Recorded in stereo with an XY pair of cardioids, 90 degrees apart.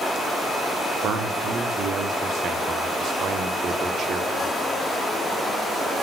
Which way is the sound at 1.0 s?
65° right.